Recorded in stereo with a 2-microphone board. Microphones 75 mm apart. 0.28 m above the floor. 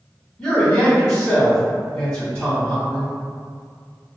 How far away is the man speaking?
About 1.6 m.